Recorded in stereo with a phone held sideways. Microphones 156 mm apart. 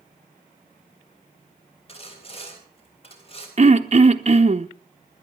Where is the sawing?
40° left (ahead or behind), 3.5 m.